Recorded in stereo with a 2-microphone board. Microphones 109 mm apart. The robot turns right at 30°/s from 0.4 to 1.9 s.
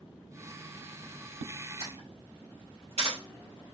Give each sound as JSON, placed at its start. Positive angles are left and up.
{"t": 1.8, "sound": "a camera shutter", "side_deg": -65, "distance_m": 3.0}